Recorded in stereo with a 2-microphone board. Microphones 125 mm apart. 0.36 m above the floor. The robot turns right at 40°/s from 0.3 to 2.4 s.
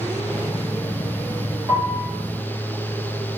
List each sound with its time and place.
1.7 s a piano: 25° right (ahead or behind), 4.5 m; by 2.1 s 5° right (ahead or behind), 4.5 m